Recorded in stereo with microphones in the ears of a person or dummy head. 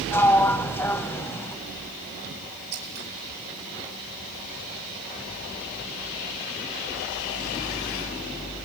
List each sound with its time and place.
0.1 s a sliding door: 10° left (ahead or behind), 0.6 m
2.7 s scissors: 75° right (ahead or behind), 6 m